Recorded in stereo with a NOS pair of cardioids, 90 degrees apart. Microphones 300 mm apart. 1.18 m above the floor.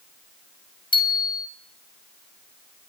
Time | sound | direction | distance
0.9 | a bicycle bell | 15° left | 5 m